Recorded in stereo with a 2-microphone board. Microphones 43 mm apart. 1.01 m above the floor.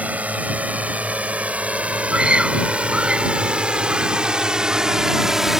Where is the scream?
25° right (ahead or behind).